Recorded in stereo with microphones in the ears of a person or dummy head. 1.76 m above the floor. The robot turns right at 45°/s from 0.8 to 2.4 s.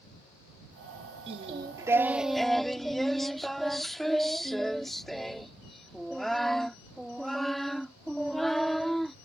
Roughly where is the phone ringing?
No phone ringing in this recording.